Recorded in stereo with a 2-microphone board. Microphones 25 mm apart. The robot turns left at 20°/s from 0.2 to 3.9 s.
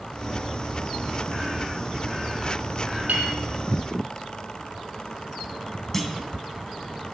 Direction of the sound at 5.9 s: 15° left (ahead or behind).